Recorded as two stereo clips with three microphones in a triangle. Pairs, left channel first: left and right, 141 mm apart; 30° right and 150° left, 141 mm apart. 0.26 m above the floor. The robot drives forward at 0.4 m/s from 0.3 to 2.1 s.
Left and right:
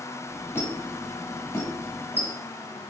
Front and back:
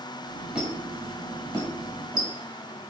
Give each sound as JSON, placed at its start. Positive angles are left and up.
{"t": 0.6, "sound": "a squeak", "azimuth_deg": 80, "distance_m": 1.0}